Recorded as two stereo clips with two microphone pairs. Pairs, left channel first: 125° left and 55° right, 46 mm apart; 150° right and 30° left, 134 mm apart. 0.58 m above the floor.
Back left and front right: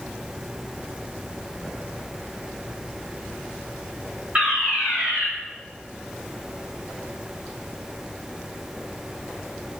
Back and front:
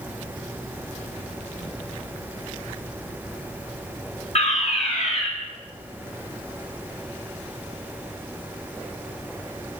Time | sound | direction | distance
4.3 | a fire alarm | 125° right | 4.5 m